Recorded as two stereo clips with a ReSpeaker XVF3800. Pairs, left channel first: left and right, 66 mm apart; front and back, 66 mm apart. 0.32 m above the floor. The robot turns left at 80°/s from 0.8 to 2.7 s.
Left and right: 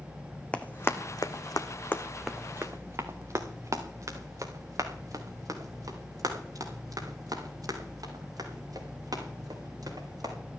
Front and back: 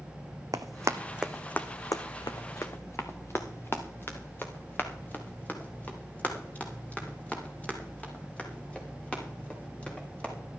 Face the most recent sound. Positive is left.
turn(degrees=-75)